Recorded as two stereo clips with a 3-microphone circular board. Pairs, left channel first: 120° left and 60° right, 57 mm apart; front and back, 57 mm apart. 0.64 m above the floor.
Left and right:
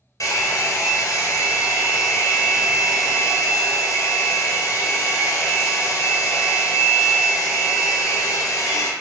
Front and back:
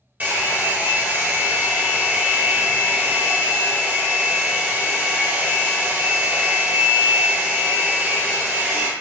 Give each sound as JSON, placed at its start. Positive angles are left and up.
{"t": 0.2, "sound": "a hair dryer", "azimuth_deg": 120, "distance_m": 1.5}